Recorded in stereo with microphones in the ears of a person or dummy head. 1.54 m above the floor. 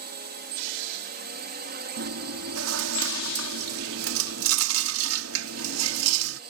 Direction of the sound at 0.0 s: 50° right (ahead or behind).